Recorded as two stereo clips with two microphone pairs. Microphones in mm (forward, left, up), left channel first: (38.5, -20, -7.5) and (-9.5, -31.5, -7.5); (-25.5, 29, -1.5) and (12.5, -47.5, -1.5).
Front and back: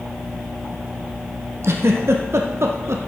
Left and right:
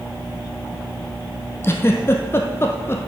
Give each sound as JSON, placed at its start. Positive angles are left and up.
{"t": 1.6, "sound": "a giggle", "azimuth_deg": 175, "distance_m": 1.6}